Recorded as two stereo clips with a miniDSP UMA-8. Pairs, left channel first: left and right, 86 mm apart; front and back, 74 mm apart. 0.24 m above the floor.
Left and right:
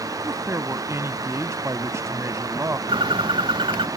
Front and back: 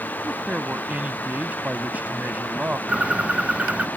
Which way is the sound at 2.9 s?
105° right.